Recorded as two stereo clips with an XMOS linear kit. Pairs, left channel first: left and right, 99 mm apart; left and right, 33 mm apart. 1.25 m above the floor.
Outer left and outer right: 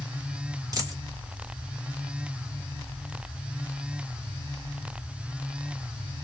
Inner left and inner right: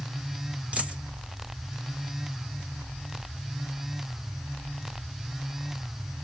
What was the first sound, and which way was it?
A dropped coin, 35° right (ahead or behind).